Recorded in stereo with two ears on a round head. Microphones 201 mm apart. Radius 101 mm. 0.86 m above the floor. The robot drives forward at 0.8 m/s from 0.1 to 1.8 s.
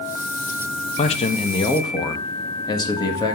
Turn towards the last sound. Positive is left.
turn(degrees=20)  # may be behind; listen again after turning